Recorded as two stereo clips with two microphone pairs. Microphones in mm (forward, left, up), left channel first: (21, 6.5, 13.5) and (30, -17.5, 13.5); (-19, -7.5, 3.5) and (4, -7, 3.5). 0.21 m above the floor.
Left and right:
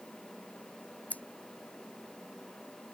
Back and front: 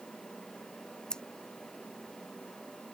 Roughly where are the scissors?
Behind left.